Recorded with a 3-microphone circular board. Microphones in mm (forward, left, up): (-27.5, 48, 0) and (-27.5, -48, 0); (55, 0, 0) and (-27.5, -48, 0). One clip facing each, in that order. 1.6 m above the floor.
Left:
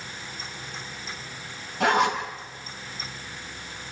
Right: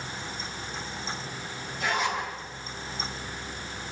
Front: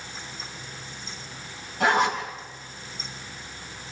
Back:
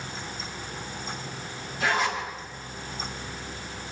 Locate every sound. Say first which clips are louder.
1.8 s a zipper: left 7 dB, front 4 dB; 65° left, 5 m